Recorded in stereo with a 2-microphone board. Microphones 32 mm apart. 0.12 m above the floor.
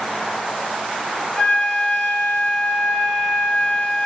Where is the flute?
30° left (ahead or behind), 1.5 m.